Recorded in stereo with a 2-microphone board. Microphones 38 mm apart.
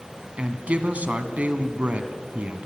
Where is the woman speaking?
40° right (ahead or behind), 1.8 m.